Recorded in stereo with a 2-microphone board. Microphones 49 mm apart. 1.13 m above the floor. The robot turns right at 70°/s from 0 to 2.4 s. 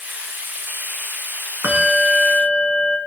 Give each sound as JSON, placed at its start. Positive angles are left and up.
{"t": 1.6, "sound": "a bell", "azimuth_deg": -65, "distance_m": 4.5}